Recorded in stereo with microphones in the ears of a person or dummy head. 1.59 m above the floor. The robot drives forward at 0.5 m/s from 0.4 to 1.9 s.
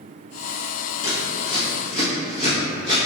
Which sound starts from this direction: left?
Scissors, at 1.0 s.